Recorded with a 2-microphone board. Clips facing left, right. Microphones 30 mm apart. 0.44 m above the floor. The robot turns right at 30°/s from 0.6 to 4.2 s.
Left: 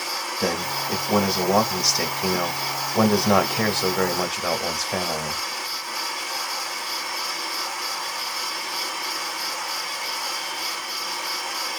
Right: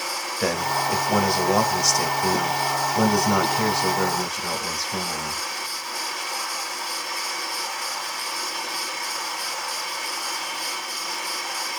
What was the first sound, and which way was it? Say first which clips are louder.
A man speaking: right 3 dB; 20° right.